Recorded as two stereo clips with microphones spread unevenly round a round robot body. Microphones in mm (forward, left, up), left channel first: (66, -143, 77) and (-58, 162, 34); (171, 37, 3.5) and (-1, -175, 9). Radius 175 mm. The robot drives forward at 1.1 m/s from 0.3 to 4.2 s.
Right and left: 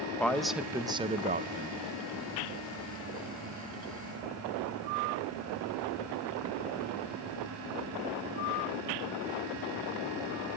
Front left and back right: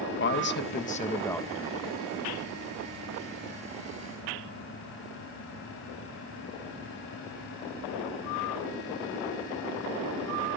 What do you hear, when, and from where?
0.2 s a man speaking: 25° left, 1.3 m; by 1.8 s 155° left, 1.2 m